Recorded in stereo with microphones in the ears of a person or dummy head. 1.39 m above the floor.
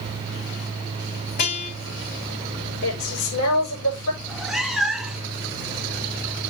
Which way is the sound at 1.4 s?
55° left (ahead or behind).